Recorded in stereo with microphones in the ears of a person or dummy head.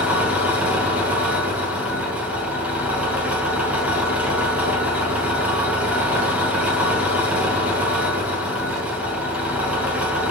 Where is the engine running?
10° right (ahead or behind), 7.5 m.